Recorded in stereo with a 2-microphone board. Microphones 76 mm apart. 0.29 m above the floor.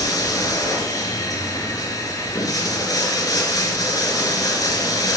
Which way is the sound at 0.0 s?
50° left (ahead or behind).